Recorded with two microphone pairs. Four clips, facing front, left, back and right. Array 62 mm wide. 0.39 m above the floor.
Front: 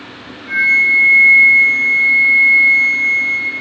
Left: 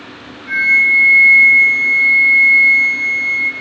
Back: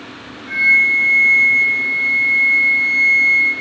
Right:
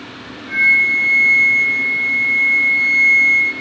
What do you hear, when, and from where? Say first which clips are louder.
0.5 s a flute: left 2 dB, front 1 dB; 85° left, 2.5 m